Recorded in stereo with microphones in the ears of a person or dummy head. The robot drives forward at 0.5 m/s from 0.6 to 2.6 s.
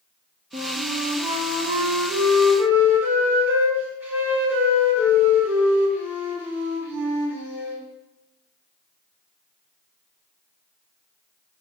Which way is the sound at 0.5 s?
30° right (ahead or behind).